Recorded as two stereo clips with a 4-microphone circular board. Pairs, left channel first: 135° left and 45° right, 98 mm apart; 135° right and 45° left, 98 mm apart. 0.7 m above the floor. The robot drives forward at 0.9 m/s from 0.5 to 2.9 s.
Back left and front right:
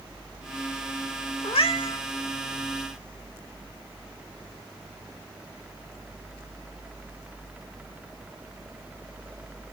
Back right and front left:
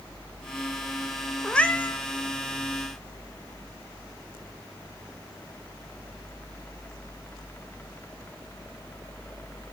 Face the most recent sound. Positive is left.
turn(degrees=165)